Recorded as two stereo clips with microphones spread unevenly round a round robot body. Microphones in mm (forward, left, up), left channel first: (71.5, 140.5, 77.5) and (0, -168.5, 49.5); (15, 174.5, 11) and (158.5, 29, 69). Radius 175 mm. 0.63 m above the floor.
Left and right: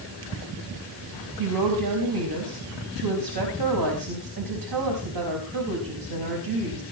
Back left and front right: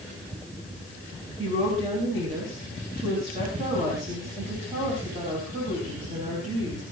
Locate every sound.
1.4 s a woman speaking: 120° right, 4.5 m